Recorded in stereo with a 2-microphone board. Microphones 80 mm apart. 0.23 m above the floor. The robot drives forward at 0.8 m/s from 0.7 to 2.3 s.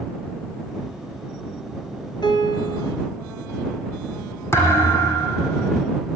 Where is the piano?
75° left (ahead or behind), 2.5 m.